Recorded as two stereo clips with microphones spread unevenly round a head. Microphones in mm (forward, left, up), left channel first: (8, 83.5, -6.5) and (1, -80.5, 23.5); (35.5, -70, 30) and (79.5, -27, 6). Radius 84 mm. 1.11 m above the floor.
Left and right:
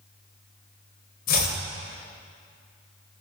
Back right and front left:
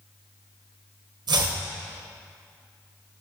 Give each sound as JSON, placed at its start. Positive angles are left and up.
{"t": 1.3, "sound": "chopping", "azimuth_deg": 50, "distance_m": 1.4}